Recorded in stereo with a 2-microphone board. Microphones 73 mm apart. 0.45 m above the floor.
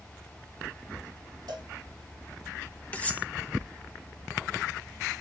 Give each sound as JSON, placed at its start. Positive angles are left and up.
{"t": 1.5, "sound": "a cowbell", "side_deg": -65, "distance_m": 3.0}
{"t": 2.9, "sound": "cutlery clinking", "side_deg": 20, "distance_m": 0.6}